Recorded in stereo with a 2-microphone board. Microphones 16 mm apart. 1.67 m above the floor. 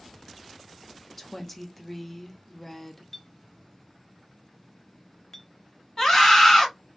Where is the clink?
25° left (ahead or behind), 0.6 m.